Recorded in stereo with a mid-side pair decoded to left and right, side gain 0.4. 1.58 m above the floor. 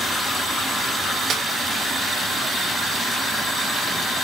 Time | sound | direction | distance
1.3 | a snare drum | 60° right | 2.5 m